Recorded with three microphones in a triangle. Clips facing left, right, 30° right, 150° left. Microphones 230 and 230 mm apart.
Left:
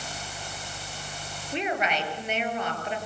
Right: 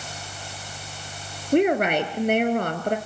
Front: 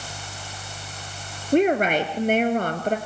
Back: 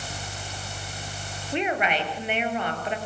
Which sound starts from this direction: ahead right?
A woman speaking, at 1.5 s.